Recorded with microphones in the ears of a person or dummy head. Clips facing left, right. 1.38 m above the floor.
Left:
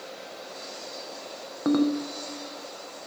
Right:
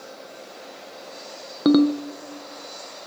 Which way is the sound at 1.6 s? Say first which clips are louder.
Right 6 dB; 45° right (ahead or behind).